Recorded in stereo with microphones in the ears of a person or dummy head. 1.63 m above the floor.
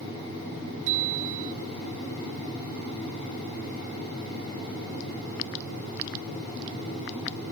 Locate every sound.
0.9 s a bicycle bell: 65° right (ahead or behind)